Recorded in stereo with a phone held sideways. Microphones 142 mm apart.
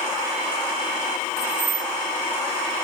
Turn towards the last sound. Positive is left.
turn(degrees=-30)  # may be behind; listen again after turning